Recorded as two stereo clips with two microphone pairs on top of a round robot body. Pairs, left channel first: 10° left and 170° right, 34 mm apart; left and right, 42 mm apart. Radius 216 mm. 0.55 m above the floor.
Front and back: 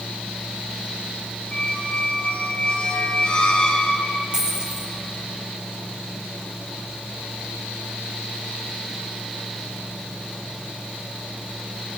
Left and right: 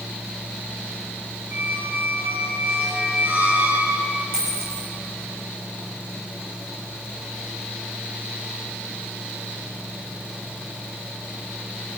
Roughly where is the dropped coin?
Right.